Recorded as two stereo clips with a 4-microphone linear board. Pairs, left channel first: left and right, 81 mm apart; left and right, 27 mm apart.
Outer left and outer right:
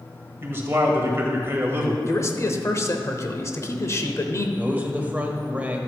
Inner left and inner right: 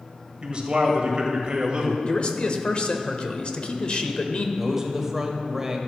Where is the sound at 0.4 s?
30° right (ahead or behind), 1.8 m.